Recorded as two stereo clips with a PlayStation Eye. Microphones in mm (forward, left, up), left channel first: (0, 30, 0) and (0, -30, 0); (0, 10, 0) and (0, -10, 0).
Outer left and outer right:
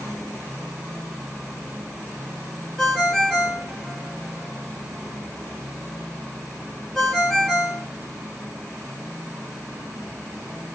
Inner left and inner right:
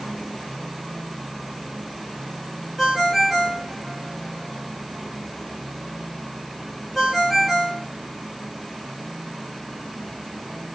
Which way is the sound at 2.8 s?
5° left (ahead or behind).